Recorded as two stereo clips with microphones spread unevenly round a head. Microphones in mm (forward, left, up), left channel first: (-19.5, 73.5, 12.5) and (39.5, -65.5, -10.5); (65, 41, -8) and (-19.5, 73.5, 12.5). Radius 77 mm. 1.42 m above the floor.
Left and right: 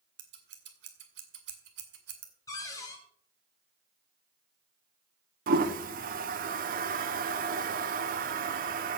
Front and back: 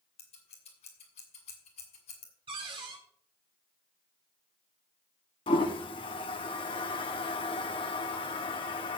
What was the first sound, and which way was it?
Scissors, 60° right.